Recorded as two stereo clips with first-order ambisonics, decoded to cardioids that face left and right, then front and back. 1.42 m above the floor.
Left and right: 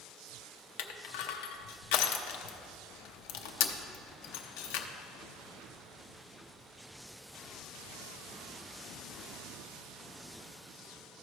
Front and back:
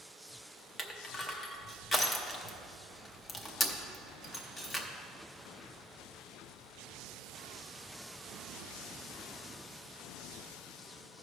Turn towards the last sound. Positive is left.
turn(degrees=80)